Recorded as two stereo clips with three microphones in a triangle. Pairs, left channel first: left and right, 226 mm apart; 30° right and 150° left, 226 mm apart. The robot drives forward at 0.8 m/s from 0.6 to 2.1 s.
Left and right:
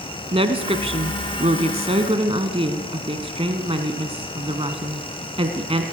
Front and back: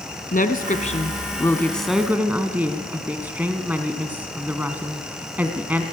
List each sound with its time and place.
0.3 s a woman speaking: 40° right, 1.4 m; by 5.8 s 130° right, 1.3 m